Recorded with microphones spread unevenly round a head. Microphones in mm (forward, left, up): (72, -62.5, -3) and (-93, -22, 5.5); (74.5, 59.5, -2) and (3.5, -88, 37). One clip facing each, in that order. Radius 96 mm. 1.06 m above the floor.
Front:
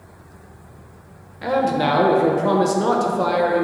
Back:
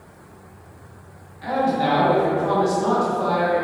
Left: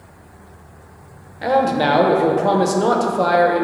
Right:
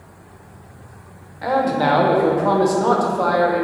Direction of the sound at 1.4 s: 15° left.